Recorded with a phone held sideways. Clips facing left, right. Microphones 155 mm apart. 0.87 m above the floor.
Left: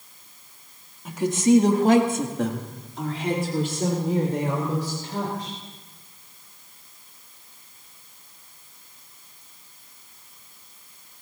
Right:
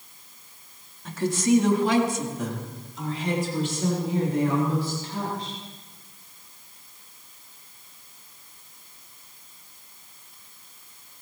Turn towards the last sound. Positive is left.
turn(degrees=50)  # may be behind; listen again after turning